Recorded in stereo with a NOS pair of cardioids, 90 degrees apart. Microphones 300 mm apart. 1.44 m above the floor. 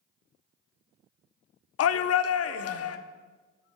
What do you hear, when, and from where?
1.8 s a shout: 55° left, 0.7 m